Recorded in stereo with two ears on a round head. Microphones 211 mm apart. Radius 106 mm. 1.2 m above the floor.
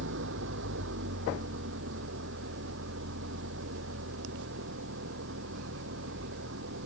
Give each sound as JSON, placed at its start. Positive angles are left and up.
{"t": 0.0, "sound": "an engine running", "side_deg": -50}